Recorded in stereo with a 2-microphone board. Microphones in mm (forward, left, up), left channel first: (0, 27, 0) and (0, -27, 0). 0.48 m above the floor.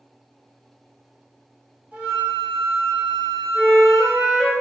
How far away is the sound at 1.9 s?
About 1.4 m.